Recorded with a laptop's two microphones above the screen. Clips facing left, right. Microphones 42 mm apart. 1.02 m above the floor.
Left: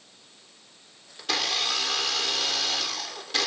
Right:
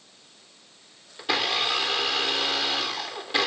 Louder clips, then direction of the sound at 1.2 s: Right 3 dB; 15° right (ahead or behind).